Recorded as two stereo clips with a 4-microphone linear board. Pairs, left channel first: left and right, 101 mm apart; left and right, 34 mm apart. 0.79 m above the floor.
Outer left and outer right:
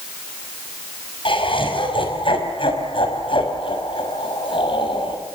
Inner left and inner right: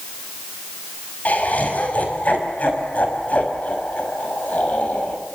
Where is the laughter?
55° left (ahead or behind), 5.5 m.